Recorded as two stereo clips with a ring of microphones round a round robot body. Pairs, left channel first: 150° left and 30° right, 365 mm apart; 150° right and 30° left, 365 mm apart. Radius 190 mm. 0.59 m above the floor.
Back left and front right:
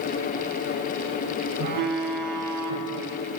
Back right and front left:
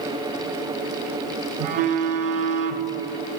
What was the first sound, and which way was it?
A phone buzzing, 10° left.